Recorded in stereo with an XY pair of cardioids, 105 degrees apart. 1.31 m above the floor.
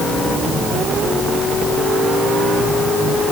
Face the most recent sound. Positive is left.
No sound to turn to.